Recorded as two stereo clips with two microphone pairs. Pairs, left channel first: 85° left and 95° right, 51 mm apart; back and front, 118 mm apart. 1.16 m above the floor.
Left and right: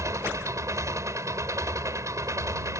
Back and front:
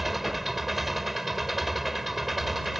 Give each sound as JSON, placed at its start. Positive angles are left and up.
{"t": 0.0, "sound": "an engine running", "azimuth_deg": -85}